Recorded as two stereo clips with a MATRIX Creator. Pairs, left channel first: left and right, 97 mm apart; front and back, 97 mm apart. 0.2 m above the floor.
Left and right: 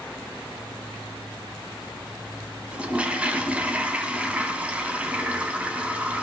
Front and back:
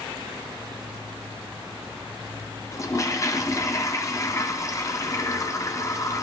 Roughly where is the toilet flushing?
Ahead.